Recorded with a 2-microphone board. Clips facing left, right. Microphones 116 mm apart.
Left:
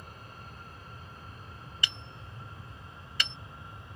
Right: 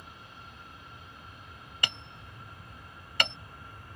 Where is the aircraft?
45° left (ahead or behind); by 4.0 s 25° left (ahead or behind).